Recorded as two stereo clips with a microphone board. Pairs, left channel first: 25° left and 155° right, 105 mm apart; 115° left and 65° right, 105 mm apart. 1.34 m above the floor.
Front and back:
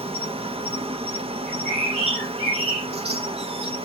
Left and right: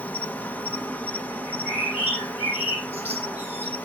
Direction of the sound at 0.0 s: 175° right.